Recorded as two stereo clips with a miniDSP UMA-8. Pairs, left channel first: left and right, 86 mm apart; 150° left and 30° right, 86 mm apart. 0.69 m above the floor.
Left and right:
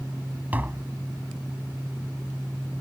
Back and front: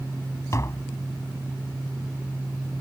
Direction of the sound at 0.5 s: 160° right.